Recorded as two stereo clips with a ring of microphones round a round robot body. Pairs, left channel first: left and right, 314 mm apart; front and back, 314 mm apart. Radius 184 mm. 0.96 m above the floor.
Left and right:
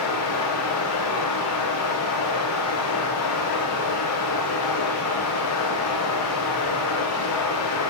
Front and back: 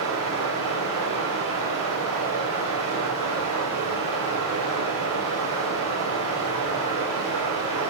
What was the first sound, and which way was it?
Running water, 130° left.